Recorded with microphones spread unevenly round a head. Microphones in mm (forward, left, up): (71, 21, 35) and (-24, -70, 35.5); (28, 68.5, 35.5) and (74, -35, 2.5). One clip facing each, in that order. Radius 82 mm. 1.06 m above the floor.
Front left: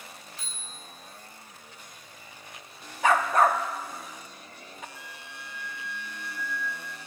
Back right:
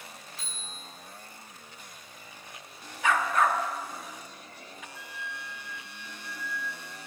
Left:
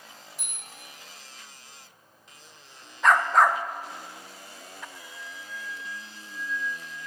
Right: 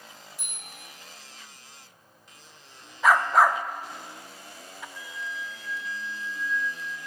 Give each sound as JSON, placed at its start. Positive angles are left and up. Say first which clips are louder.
{"t": 0.4, "sound": "a bicycle bell", "louder": "back right 1 dB, even", "azimuth_deg": 120, "distance_m": 4.5}
{"t": 3.0, "sound": "a dog barking", "louder": "front left 4 dB, even", "azimuth_deg": 45, "distance_m": 0.5}
{"t": 5.0, "sound": "a flute", "louder": "back right 3 dB, right 6 dB", "azimuth_deg": 65, "distance_m": 0.8}